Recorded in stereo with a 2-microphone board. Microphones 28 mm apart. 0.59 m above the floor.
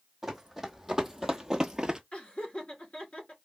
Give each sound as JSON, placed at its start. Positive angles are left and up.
{"t": 0.2, "sound": "running footsteps", "side_deg": -10, "distance_m": 1.9}
{"t": 2.1, "sound": "laughter", "side_deg": 40, "distance_m": 1.8}